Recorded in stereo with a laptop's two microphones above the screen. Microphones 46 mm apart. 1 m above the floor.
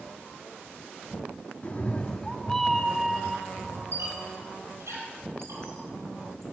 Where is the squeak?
70° right (ahead or behind), 5 m.